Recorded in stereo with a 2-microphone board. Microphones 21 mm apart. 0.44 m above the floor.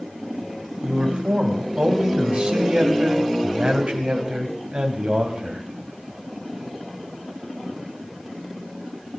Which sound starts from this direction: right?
A man speaking, at 0.8 s.